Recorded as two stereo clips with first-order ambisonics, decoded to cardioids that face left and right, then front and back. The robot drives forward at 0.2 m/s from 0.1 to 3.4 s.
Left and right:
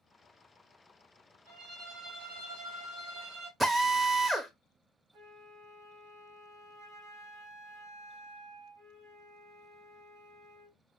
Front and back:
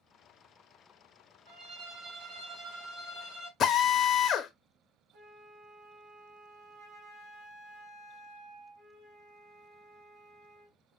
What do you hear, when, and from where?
1.5 s a violin: 120° right, 2.5 m; by 3.5 s 130° right, 2.5 m
3.6 s a drill: 20° right, 0.6 m
5.1 s a flute: 135° right, 3 m